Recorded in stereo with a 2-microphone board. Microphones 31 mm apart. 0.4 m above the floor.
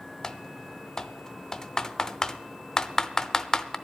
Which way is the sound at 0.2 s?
25° left (ahead or behind).